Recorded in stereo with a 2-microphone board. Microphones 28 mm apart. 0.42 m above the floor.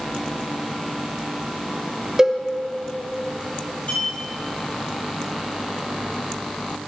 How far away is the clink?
About 5.5 m.